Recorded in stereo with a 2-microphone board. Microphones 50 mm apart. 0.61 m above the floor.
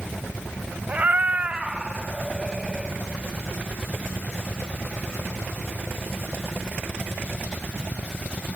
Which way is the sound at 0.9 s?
30° right (ahead or behind).